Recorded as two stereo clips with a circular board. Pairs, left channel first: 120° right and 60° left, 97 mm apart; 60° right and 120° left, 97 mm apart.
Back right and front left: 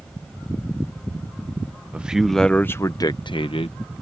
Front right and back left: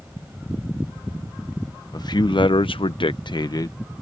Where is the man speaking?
15° right; by 3.8 s 110° right.